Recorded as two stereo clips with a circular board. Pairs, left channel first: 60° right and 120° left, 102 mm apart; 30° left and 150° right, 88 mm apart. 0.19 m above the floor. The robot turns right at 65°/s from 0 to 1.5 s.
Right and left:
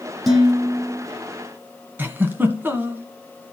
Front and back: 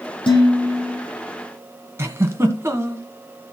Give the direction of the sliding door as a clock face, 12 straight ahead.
I don't hear a sliding door.